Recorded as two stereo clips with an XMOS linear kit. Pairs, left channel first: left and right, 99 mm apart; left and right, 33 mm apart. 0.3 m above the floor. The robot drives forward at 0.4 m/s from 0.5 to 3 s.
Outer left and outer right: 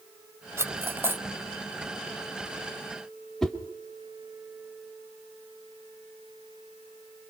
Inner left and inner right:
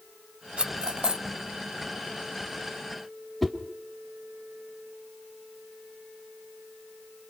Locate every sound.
0.6 s cutlery clinking: 30° right (ahead or behind), 0.8 m; by 1.2 s 20° right (ahead or behind), 1.0 m
3.4 s a whoosh: 5° left (ahead or behind), 1.7 m